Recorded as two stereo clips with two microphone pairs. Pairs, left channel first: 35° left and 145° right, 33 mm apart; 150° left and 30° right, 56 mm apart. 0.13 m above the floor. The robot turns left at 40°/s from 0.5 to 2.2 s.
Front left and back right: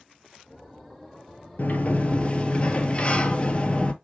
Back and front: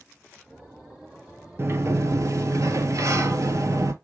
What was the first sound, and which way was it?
A sliding door, 10° left.